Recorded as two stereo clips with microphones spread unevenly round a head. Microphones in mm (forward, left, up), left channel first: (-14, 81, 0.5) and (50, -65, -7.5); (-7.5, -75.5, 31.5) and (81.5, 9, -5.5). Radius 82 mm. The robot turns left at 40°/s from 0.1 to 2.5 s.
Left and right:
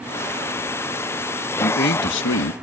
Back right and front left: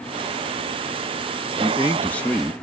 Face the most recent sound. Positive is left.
turn(degrees=125)